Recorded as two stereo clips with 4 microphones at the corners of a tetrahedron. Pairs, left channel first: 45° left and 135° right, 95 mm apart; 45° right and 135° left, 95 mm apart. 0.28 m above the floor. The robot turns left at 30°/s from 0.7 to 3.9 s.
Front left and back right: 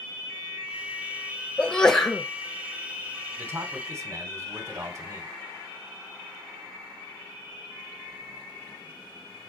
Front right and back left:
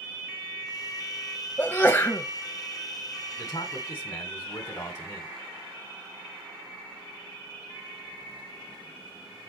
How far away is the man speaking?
About 1.6 m.